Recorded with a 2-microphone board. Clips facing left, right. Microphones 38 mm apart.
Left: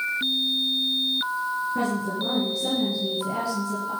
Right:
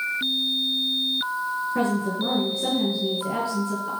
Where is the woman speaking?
25° right (ahead or behind), 3 m.